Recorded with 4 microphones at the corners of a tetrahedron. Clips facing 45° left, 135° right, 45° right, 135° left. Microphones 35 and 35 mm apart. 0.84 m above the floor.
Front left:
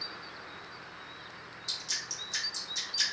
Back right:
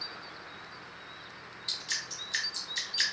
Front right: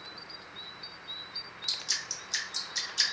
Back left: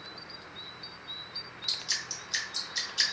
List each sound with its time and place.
1.7 s dripping: 150° right, 1.2 m